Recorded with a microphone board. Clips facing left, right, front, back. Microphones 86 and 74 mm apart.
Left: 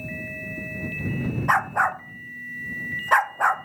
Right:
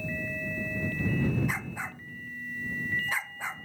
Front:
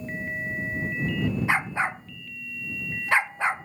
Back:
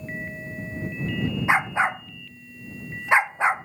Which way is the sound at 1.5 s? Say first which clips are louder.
Left 15 dB, back 8 dB; 110° left.